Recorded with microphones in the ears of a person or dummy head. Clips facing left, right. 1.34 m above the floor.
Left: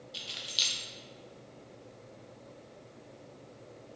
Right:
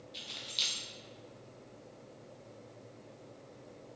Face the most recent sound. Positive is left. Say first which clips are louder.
# left 2 dB
turn(degrees=10)  # may be behind; listen again after turning